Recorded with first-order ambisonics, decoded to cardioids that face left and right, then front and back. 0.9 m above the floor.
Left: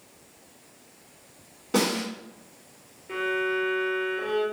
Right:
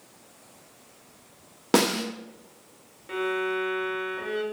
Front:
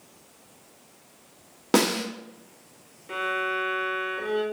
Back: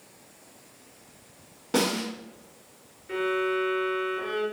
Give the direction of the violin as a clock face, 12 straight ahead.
2 o'clock.